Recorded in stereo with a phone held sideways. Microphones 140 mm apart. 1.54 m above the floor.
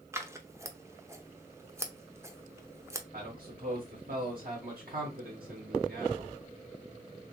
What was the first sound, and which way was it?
Scissors, 20° right (ahead or behind).